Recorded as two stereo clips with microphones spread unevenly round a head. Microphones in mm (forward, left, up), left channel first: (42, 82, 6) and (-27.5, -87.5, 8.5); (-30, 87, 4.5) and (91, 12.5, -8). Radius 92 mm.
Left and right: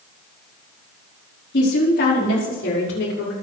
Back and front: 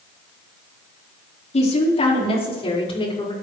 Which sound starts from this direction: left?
A woman speaking, at 1.5 s.